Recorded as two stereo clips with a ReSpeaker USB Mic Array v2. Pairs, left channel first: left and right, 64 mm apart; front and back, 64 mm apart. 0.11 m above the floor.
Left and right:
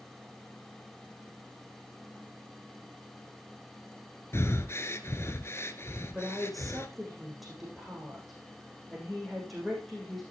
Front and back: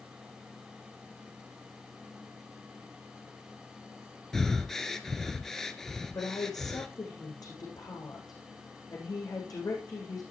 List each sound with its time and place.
4.3 s breathing: 80° left, 1.4 m
6.1 s a woman speaking: straight ahead, 7.5 m